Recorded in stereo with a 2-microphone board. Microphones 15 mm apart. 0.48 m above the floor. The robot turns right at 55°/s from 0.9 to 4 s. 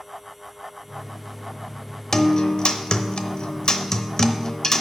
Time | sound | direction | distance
2.1 | a guitar | 35° left | 0.7 m